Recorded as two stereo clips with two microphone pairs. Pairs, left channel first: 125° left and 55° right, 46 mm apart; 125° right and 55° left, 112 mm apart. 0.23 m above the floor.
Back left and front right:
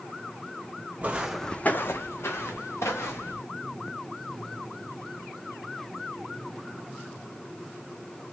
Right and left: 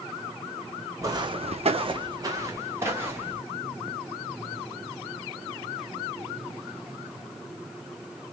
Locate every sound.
1.0 s footsteps: straight ahead, 0.7 m; by 3.4 s 130° left, 2 m